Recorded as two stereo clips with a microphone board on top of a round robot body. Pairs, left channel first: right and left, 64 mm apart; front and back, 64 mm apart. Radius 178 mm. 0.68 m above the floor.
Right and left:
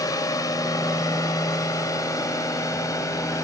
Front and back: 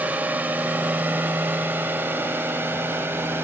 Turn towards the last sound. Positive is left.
turn(degrees=-125)